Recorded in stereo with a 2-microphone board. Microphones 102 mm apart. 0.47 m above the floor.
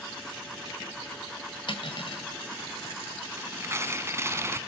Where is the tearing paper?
25° right (ahead or behind), 0.8 m.